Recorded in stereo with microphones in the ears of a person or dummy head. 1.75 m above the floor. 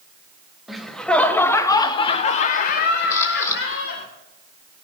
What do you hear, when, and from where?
0.7 s laughter: centre (ahead or behind), 1.2 m; by 4.1 s 70° left (ahead or behind), 1.5 m
3.1 s a camera shutter: 20° left (ahead or behind), 4 m